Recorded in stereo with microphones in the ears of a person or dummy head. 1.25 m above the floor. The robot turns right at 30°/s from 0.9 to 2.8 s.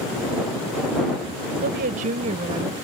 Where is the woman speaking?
55° right; by 2.7 s 20° right.